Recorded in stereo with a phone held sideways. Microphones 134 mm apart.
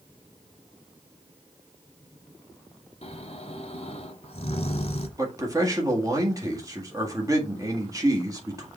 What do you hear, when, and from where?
3.0 s snoring: 50° left (ahead or behind), 1.2 m
5.2 s a man speaking: 25° right (ahead or behind), 1.8 m